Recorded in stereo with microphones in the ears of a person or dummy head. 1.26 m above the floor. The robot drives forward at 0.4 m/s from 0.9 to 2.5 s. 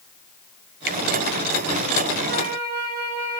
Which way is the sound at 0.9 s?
50° right (ahead or behind).